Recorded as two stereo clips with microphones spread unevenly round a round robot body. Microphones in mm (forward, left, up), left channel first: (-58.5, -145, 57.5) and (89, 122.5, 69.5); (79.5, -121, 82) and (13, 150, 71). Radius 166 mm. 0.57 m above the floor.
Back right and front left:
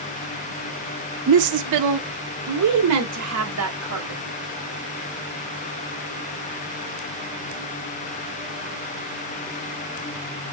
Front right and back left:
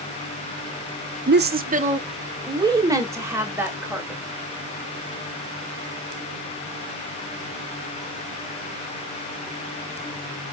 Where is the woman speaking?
60° left, 1.0 m; by 4.2 s 20° left, 3 m.